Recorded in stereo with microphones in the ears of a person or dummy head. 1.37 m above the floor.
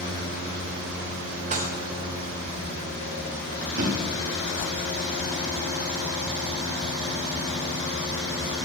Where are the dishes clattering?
40° right (ahead or behind), 0.9 m.